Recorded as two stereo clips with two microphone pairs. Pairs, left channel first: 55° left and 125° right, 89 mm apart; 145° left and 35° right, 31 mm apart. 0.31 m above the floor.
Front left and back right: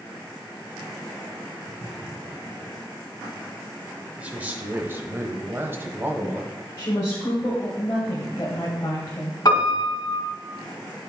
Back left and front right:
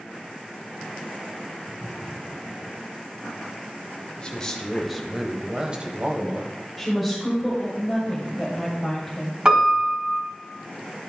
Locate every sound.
4.2 s a man speaking: 175° left, 1.0 m; by 6.5 s 65° right, 1.6 m
6.8 s a woman speaking: 50° left, 1.8 m
9.4 s a piano: 20° left, 2 m